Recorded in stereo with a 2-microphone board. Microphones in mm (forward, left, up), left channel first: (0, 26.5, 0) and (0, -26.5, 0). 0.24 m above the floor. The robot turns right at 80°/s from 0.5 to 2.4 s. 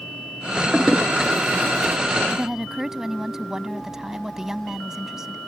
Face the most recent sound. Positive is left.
turn(degrees=-10)  # may be behind; listen again after turning